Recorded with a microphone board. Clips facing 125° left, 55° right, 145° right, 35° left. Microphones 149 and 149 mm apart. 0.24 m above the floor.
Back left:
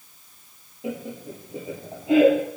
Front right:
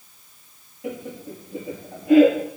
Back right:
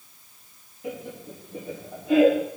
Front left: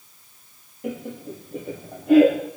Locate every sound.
0.8 s laughter: 60° left, 5.5 m